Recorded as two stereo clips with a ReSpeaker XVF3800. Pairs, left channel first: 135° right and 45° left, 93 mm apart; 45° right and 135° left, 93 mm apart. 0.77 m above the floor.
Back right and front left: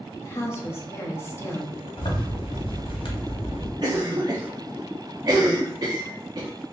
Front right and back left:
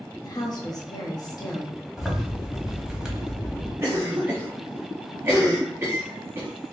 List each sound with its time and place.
0.2 s a woman speaking: 75° right, 0.9 m
2.0 s a zipper: 140° right, 1.1 m
3.8 s a cough: 75° left, 0.6 m